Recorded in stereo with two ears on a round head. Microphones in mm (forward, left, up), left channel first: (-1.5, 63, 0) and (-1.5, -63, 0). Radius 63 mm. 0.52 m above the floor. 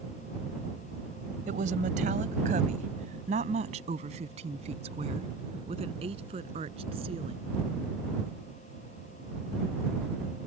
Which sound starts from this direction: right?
A woman speaking, at 1.5 s.